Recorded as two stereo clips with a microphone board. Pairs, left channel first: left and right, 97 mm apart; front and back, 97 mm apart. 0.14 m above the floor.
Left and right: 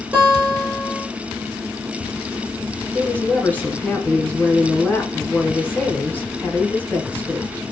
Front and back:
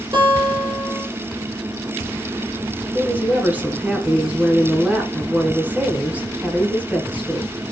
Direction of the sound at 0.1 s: 160° right.